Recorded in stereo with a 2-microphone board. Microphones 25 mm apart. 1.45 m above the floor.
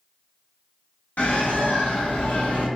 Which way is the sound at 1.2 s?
85° left.